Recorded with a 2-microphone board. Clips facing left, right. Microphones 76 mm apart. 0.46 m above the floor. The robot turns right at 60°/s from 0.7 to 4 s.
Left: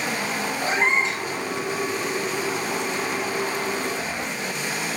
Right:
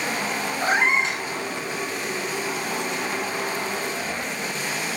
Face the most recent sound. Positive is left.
turn(degrees=75)